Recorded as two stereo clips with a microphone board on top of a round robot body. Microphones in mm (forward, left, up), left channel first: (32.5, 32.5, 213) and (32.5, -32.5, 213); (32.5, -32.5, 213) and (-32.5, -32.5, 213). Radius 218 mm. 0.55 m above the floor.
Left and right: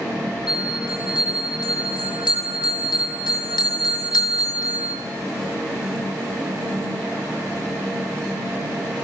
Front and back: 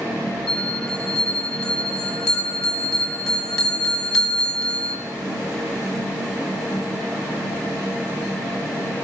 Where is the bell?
85° left, 2.5 m.